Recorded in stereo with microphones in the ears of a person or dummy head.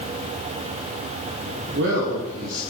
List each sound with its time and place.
1.7 s a man speaking: 65° right (ahead or behind), 1.8 m